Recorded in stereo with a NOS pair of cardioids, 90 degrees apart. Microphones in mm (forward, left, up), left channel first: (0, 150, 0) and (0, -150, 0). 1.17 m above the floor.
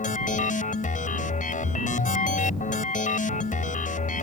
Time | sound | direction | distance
0.0 | a machine running | 25° left | ?